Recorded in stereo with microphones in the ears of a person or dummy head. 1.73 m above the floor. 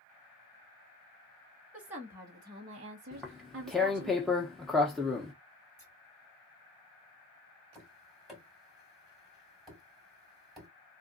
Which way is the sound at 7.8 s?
Centre (ahead or behind).